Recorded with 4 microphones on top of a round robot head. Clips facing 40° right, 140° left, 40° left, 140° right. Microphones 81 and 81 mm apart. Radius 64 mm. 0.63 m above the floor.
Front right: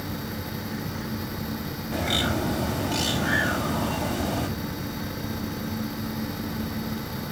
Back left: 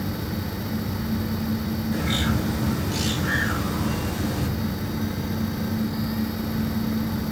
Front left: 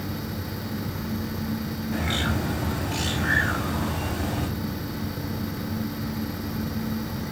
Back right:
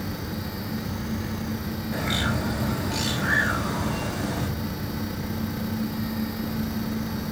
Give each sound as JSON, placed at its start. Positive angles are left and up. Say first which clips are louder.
{"t": 1.9, "sound": "a bird", "louder": "front right 1 dB, even", "azimuth_deg": -70, "distance_m": 4.5}